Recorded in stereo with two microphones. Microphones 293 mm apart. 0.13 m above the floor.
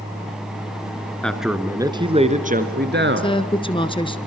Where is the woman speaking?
15° left (ahead or behind), 1.5 m.